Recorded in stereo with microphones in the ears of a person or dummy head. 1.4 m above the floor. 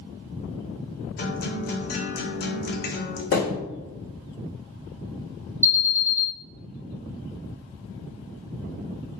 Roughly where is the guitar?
Left.